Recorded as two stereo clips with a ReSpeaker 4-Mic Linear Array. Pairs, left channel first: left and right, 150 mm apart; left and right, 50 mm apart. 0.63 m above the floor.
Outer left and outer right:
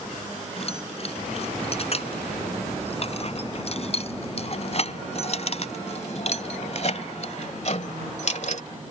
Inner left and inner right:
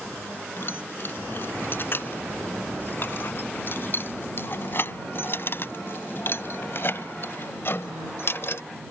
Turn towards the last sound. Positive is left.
turn(degrees=55)  # may be behind; listen again after turning